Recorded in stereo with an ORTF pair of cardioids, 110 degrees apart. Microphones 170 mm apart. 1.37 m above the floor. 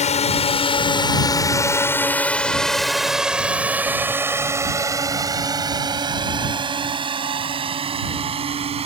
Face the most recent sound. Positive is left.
turn(degrees=-35)